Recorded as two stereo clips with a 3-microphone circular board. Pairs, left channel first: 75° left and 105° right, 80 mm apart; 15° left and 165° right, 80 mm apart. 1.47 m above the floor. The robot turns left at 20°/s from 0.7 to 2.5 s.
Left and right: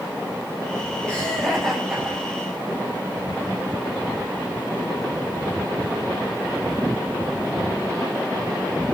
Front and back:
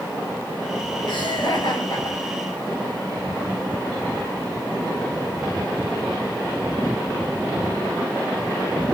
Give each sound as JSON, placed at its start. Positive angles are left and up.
{"t": 1.1, "sound": "laughter", "azimuth_deg": 0, "distance_m": 8.0}